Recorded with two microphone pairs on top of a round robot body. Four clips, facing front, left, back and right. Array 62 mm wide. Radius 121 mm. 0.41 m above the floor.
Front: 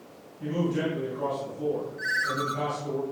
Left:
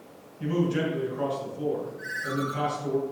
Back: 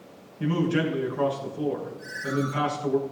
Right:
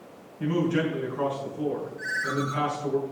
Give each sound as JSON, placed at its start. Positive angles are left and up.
{"t": 0.4, "sound": "a man speaking", "azimuth_deg": -150, "distance_m": 7.0}
{"t": 2.0, "sound": "a ringtone", "azimuth_deg": -30, "distance_m": 4.5}